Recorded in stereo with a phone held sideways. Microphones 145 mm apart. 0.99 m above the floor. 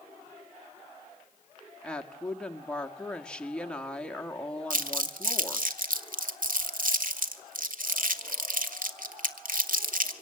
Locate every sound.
1.8 s a woman speaking: 5° left (ahead or behind), 1.4 m
4.7 s crumpling: 70° right (ahead or behind), 1.4 m